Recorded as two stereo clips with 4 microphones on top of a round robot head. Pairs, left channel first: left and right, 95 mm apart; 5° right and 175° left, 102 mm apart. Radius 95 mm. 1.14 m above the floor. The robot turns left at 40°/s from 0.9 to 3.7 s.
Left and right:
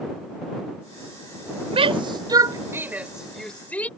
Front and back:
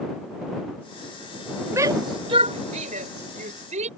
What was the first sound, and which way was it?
A shout, 115° right.